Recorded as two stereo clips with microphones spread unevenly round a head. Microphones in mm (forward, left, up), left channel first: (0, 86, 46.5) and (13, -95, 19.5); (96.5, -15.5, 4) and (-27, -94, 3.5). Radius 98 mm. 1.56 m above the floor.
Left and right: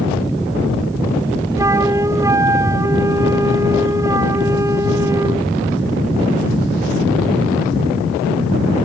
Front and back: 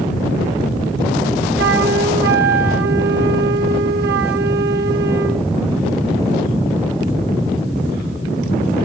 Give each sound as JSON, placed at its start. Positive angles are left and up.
{"t": 1.6, "sound": "a flute", "azimuth_deg": -165}